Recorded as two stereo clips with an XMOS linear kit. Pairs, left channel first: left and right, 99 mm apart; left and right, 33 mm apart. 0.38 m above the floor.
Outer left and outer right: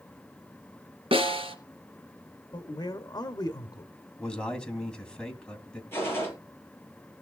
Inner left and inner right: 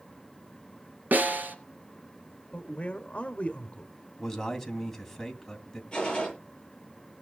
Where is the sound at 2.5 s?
40° left (ahead or behind), 1.0 m.